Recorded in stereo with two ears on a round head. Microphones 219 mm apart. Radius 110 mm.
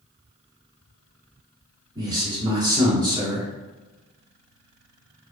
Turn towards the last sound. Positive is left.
turn(degrees=-15)  # may be behind; listen again after turning